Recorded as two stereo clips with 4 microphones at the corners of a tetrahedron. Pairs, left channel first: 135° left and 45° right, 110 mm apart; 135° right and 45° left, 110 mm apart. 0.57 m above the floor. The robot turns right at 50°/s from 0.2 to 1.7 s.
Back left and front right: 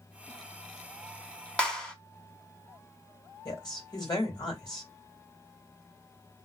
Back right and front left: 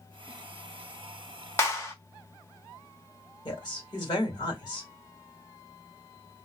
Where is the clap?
160° right, 0.9 m; by 1.9 s 155° right, 0.9 m.